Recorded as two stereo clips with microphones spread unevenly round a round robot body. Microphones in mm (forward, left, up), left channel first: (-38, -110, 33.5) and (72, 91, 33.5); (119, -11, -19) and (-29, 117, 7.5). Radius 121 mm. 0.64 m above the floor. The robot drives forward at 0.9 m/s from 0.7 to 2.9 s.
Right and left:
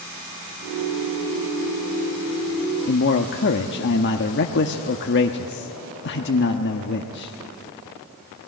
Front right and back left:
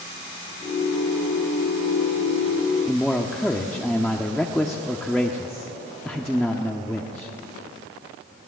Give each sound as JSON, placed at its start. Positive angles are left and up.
{"t": 2.9, "sound": "a man speaking", "azimuth_deg": -120, "distance_m": 1.0}